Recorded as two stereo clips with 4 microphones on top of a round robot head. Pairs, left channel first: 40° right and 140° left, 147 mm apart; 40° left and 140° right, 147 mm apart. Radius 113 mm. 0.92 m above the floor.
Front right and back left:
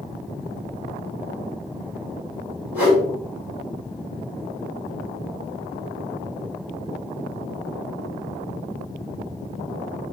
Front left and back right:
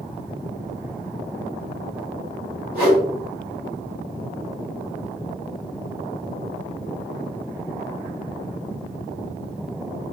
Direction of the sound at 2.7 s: 140° right.